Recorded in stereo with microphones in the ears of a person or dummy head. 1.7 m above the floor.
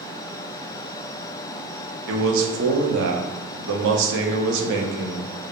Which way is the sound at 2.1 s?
65° right (ahead or behind).